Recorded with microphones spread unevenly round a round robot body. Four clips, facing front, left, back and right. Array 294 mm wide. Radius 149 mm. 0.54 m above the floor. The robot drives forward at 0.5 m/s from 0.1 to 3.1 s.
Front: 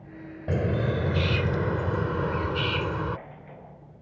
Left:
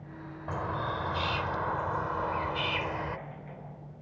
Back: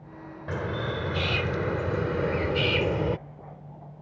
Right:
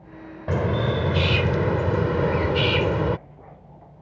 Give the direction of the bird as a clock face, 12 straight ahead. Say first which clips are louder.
Right 9 dB, front 4 dB; 2 o'clock.